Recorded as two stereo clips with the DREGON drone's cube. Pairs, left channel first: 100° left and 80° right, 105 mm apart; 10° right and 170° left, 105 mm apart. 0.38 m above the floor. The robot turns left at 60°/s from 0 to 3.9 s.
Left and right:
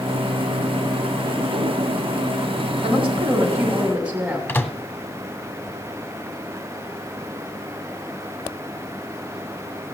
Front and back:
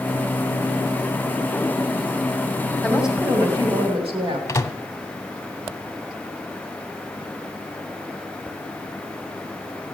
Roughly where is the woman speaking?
Right.